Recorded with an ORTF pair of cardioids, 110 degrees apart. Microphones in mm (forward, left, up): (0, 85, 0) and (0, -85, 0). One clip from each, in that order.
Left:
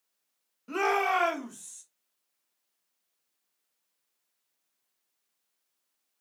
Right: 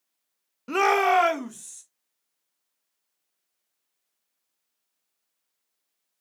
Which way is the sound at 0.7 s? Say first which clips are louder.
Right 6 dB; 45° right.